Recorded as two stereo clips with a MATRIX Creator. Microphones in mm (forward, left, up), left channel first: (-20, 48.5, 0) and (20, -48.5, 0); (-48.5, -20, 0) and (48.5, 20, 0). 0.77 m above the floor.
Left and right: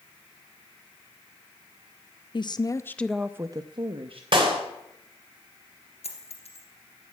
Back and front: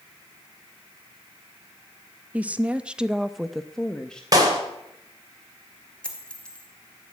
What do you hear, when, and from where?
2.3 s a woman speaking: 95° left, 0.7 m; by 4.2 s 75° right, 0.9 m
4.3 s a clap: 30° right, 3 m
6.0 s a dropped coin: 125° left, 2.5 m